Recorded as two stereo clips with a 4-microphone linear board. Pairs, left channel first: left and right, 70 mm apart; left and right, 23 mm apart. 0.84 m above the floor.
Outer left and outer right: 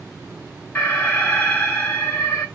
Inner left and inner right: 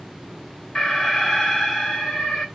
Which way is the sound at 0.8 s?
20° left (ahead or behind).